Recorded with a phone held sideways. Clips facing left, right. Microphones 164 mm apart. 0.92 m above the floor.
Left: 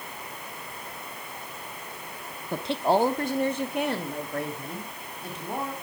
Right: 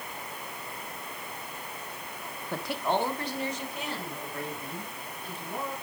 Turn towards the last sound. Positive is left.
turn(degrees=75)  # may be behind; listen again after turning